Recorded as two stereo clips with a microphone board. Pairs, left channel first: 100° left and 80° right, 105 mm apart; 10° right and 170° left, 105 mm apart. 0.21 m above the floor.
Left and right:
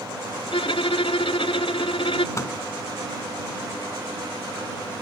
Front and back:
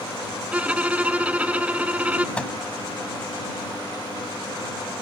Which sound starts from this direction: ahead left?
A microwave, at 2.4 s.